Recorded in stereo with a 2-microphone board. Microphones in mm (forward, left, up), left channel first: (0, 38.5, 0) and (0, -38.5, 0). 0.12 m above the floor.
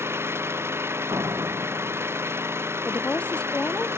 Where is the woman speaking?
15° left (ahead or behind).